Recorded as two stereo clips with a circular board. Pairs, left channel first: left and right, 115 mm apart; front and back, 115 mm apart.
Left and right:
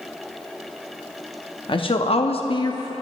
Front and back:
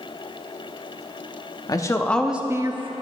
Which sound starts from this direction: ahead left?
A woman speaking, at 1.7 s.